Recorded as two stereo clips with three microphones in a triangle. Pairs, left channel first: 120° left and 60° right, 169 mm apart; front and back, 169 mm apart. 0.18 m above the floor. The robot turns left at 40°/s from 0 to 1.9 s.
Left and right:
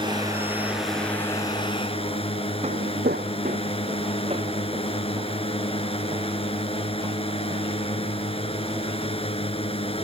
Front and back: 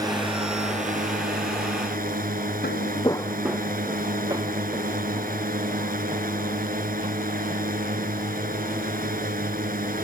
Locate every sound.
0.0 s a drone: 115° right; by 10.1 s 170° left
2.6 s footsteps: 10° right; by 8.9 s 125° right